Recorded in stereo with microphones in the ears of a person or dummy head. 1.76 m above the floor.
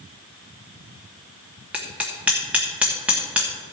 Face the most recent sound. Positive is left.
turn(degrees=-5)  # may be behind; listen again after turning